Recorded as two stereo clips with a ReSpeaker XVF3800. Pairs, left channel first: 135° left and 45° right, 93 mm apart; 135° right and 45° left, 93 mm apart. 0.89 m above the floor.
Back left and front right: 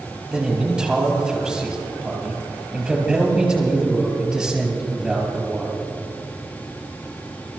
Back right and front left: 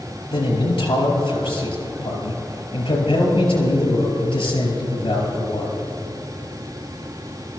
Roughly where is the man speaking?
Behind right.